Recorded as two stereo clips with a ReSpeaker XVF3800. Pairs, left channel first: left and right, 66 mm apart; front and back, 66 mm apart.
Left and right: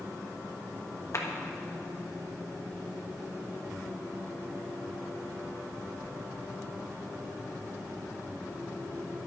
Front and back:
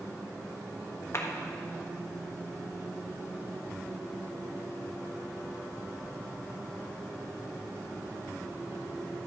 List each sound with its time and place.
1.1 s a clap: 45° left, 1.3 m